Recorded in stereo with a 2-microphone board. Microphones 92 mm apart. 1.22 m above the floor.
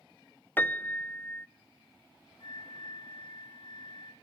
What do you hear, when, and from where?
0.6 s a piano: 20° left (ahead or behind), 0.6 m
2.4 s a flute: 55° left (ahead or behind), 2 m